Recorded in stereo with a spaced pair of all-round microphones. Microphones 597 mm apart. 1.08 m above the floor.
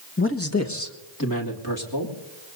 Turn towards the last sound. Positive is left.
turn(degrees=35)  # may be behind; listen again after turning